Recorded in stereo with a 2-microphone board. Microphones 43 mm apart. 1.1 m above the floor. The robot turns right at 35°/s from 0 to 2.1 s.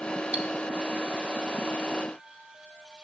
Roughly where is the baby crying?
No baby crying in this recording.